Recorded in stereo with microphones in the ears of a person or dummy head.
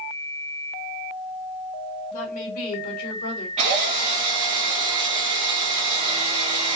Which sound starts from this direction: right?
A drill, at 3.6 s.